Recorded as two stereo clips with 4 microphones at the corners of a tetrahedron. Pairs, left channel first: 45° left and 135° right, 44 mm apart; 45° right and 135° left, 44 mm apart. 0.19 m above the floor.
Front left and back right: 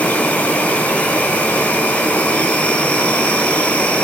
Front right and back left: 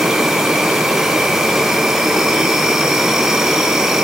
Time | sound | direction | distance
0.0 | an insect | 60° left | 2.5 m